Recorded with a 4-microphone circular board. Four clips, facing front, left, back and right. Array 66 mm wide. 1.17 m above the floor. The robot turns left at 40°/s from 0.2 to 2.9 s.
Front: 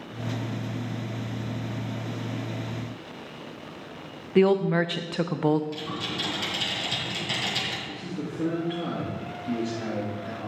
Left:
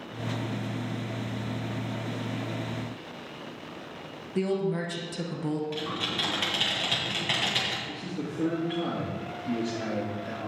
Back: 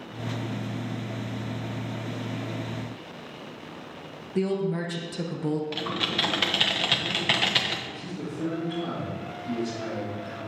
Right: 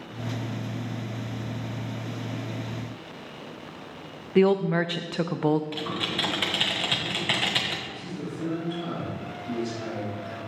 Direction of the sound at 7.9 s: 60° left.